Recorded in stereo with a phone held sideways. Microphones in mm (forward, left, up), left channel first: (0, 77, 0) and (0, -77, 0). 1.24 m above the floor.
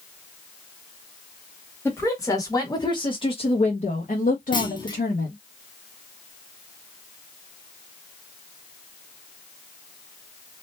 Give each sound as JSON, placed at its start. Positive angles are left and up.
{"t": 1.9, "sound": "a woman speaking", "side_deg": 15, "distance_m": 1.8}
{"t": 4.5, "sound": "a clunk", "side_deg": 30, "distance_m": 0.8}